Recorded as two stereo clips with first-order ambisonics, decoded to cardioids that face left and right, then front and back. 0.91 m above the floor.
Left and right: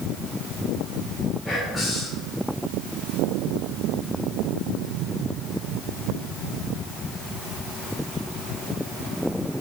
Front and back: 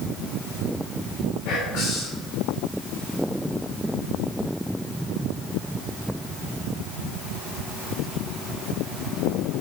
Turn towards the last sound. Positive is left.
turn(degrees=5)